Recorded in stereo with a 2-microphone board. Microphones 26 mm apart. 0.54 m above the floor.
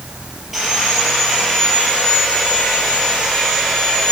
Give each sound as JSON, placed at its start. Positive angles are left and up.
{"t": 0.5, "sound": "sawing", "side_deg": -5, "distance_m": 4.0}